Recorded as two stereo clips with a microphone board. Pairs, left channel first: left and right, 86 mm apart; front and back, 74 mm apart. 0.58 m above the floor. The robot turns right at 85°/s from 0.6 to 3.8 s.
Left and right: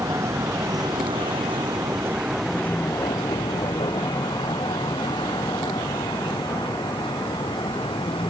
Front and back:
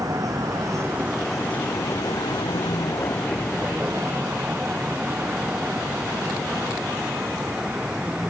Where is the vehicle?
145° right; by 8.3 s 100° left.